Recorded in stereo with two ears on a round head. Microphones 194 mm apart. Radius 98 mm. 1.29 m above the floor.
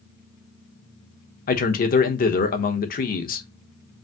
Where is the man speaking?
40° left (ahead or behind), 0.9 m.